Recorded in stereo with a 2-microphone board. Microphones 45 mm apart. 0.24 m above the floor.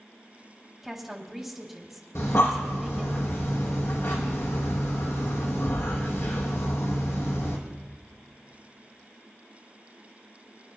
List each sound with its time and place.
0.8 s a woman speaking: 5° right (ahead or behind), 1.7 m
2.1 s breathing: 85° left, 2 m